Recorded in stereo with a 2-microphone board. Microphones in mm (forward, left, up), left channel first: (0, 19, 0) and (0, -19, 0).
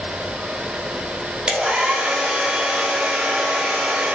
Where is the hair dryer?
25° right (ahead or behind), 0.8 m.